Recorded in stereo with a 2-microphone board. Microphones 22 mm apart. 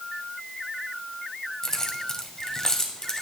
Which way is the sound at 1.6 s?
25° left (ahead or behind).